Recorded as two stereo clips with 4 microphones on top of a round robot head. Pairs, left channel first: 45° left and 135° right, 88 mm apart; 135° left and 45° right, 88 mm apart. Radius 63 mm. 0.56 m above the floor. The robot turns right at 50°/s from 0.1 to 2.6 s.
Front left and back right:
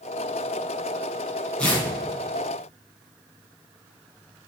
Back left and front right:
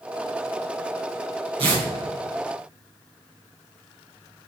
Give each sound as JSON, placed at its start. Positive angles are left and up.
{"t": 1.6, "sound": "tearing paper", "azimuth_deg": -30, "distance_m": 4.0}